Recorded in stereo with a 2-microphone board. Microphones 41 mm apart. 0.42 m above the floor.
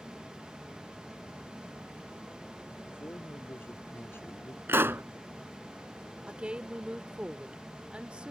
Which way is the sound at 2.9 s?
60° left (ahead or behind).